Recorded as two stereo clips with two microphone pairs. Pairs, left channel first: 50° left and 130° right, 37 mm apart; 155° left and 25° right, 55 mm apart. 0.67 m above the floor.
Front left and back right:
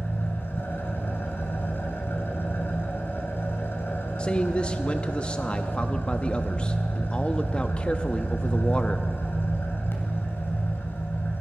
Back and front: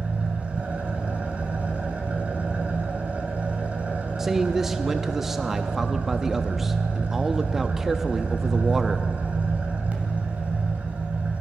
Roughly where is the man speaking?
Ahead left.